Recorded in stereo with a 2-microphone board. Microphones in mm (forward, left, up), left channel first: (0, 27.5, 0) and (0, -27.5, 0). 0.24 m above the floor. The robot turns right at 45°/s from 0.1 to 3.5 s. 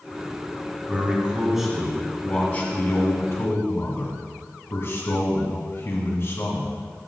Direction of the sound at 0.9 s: 40° right.